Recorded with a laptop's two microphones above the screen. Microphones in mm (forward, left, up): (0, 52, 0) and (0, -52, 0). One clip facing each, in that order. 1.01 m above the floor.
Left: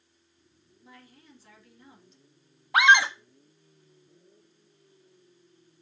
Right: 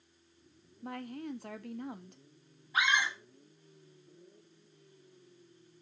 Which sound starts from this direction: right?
A woman speaking, at 0.8 s.